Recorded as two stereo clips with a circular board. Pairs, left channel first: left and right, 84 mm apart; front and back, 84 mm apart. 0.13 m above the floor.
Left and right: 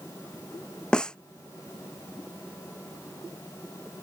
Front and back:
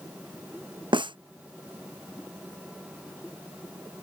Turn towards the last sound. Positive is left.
turn(degrees=170)